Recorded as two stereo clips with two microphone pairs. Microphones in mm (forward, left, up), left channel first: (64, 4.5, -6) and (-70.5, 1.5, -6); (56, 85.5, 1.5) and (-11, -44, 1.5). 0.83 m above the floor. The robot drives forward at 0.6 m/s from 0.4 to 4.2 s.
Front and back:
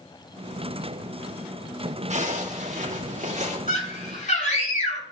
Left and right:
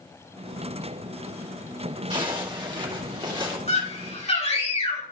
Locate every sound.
2.1 s a zipper: 170° right, 2 m
3.7 s a scream: 20° left, 7 m; by 5.0 s 25° left, 6.5 m